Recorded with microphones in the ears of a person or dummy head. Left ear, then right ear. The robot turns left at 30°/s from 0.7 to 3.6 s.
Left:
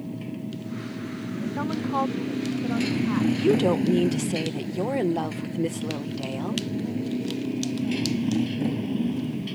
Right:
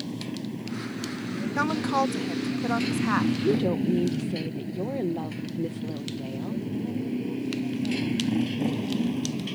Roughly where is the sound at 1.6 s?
Right.